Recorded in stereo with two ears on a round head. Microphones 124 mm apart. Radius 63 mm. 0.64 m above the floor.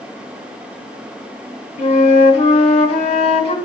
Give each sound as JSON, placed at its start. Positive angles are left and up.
{"t": 1.8, "sound": "a flute", "side_deg": 50, "distance_m": 1.2}